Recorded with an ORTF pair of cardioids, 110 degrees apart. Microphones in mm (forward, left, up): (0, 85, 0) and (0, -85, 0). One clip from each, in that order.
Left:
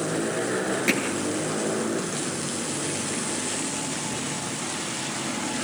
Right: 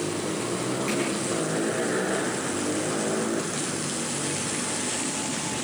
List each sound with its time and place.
0.9 s hammering: 55° left, 9.5 m